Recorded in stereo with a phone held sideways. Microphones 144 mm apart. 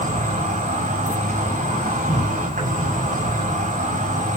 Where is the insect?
70° right (ahead or behind), 7 m.